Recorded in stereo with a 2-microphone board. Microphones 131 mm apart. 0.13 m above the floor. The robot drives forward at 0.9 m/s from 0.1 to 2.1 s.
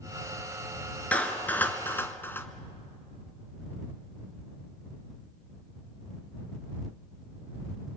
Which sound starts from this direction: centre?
A clap, at 1.1 s.